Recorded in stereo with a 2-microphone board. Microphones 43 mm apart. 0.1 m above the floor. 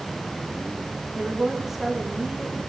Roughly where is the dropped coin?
I don't hear a dropped coin.